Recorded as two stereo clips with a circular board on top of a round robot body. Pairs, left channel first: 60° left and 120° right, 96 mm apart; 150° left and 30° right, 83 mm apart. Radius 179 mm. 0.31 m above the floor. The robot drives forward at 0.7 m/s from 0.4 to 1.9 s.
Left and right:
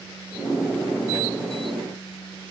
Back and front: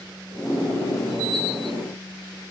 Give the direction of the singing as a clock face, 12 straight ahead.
I don't hear singing.